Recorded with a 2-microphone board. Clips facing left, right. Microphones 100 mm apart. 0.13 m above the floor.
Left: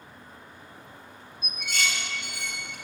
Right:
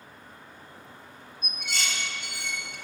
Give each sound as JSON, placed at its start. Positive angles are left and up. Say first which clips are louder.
{"t": 1.4, "sound": "dishes clattering", "louder": "left 3 dB", "side_deg": -45, "distance_m": 1.4}